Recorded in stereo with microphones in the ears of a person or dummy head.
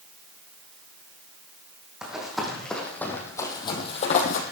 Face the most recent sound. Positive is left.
turn(degrees=45)  # may be behind; listen again after turning